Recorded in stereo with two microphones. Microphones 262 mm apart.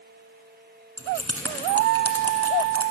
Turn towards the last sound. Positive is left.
turn(degrees=-60)  # may be behind; listen again after turning